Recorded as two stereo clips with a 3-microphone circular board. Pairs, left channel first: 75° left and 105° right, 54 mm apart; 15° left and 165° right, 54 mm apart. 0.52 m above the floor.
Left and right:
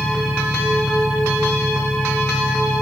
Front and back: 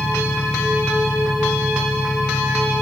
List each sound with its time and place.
0.0 s an engine running: 75° right